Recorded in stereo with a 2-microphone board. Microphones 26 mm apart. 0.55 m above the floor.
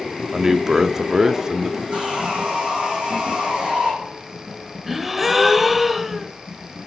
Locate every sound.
0.3 s a man speaking: 25° right (ahead or behind), 0.7 m
1.9 s sawing: 45° right (ahead or behind), 5 m
4.9 s a gasp: 10° right (ahead or behind), 0.8 m